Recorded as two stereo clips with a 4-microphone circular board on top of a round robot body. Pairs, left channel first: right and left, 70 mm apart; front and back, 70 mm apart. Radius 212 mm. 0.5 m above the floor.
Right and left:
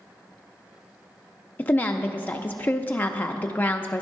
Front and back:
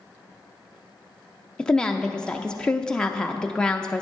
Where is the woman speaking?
65° right, 0.7 m.